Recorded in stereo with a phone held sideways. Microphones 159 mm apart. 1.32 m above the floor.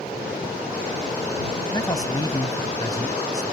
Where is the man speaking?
20° left (ahead or behind).